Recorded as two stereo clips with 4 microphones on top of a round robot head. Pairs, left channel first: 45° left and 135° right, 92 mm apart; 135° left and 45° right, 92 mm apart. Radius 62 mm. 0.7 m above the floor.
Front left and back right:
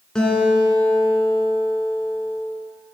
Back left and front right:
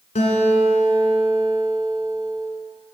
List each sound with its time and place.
0.1 s a guitar: 125° left, 1.7 m